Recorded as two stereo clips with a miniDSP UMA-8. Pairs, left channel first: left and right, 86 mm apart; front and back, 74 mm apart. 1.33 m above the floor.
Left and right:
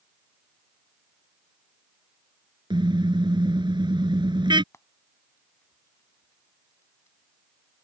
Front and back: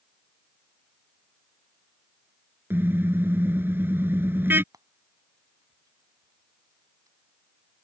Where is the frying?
150° left.